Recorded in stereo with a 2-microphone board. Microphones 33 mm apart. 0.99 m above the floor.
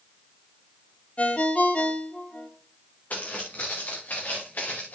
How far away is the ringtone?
About 1.4 m.